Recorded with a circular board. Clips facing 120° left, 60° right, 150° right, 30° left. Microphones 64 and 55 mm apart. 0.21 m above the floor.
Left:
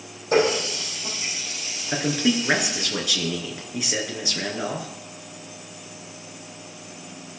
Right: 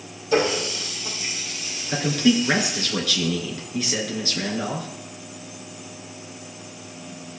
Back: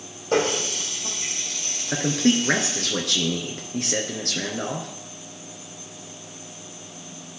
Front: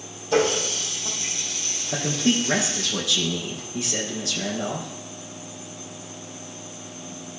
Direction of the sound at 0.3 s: 170° left.